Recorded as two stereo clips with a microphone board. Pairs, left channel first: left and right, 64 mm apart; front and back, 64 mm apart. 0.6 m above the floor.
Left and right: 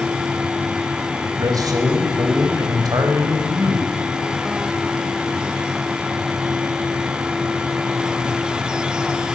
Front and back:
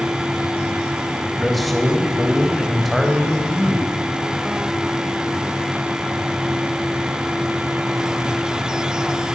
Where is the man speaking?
90° right, 4 m.